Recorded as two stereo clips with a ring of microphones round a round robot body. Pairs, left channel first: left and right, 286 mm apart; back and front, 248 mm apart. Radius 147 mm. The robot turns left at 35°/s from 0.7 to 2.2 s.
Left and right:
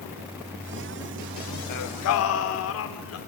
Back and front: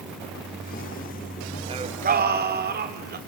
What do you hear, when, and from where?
1.7 s singing: 70° left, 2.5 m; by 3.2 s 50° left, 2.5 m